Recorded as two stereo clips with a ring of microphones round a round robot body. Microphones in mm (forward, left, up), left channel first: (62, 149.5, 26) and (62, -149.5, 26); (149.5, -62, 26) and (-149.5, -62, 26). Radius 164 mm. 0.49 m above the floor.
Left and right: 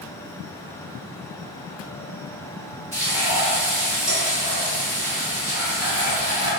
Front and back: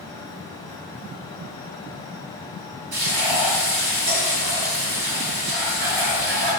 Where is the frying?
170° left, 1.9 m.